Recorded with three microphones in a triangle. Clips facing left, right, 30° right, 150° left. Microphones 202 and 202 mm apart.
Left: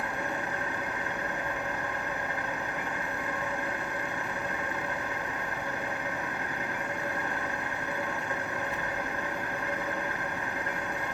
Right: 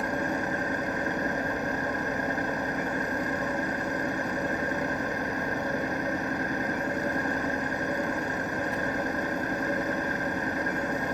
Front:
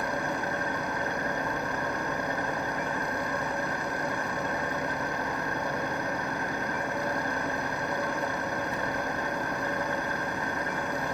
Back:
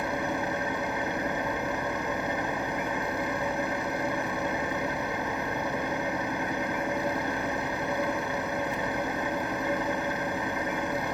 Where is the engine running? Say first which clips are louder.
Right 5 dB, back 1 dB; 135° right, 3 m.